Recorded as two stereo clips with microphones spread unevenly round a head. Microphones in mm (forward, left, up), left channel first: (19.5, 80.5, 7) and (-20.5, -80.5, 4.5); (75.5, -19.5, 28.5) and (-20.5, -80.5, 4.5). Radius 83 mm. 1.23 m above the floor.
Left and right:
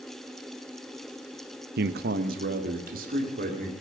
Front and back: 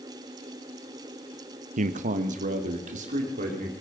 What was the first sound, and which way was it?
A man speaking, 135° right.